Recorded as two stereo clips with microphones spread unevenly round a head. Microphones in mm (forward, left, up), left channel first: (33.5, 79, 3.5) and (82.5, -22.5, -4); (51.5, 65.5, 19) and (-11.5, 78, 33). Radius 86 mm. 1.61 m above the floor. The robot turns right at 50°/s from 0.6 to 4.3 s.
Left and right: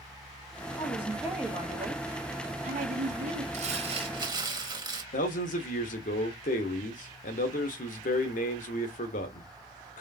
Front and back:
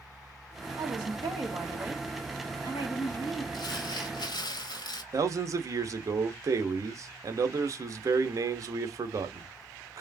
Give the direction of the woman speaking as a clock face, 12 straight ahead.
6 o'clock.